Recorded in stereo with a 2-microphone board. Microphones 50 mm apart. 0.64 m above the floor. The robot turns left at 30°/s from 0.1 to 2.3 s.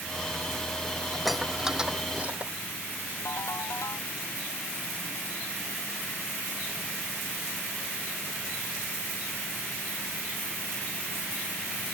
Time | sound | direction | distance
1.1 | dishes clattering | 5° left (ahead or behind) | ?
3.2 | a ringtone | 85° left | ?